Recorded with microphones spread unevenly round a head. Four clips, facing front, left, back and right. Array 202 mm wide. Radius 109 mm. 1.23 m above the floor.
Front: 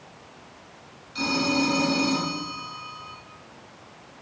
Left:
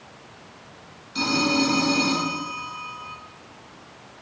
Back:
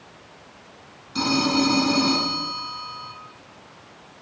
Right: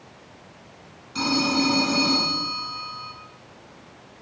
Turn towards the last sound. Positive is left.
turn(degrees=175)